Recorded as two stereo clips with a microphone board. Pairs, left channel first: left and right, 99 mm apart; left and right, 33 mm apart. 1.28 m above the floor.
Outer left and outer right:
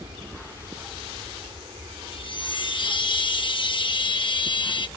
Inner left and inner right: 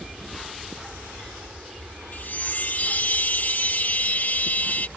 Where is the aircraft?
65° right (ahead or behind); by 5.0 s 60° right (ahead or behind).